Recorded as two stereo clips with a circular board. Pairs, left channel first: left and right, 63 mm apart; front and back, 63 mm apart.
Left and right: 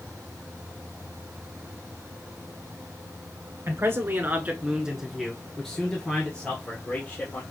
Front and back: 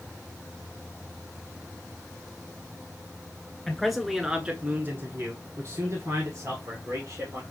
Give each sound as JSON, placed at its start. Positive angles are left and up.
{"t": 3.7, "sound": "a man speaking", "azimuth_deg": -80, "distance_m": 1.5}